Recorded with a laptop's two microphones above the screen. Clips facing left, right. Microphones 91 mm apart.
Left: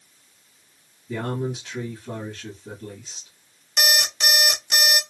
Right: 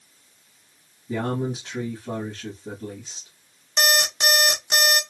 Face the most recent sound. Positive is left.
turn(degrees=-30)  # may be behind; listen again after turning